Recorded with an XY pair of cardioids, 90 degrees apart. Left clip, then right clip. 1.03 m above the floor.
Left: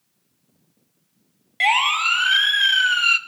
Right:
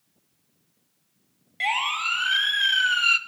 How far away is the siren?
About 2 m.